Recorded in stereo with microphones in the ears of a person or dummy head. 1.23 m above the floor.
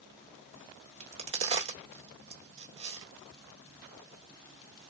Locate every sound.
1.0 s a crack: 30° right (ahead or behind), 1.5 m